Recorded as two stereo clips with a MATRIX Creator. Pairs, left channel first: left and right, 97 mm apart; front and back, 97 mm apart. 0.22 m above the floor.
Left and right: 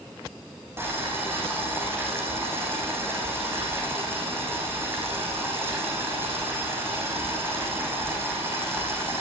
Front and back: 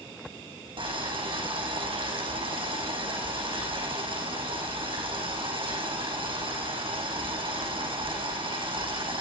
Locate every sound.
0.8 s boiling: 155° right, 5.5 m